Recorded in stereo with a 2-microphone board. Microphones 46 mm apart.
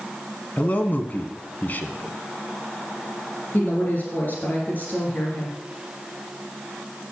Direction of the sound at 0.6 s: 40° left (ahead or behind).